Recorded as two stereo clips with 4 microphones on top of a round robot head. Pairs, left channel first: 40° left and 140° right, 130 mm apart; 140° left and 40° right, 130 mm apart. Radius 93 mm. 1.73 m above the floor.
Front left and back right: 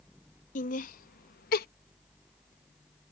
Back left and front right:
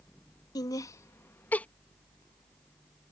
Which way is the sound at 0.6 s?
75° left.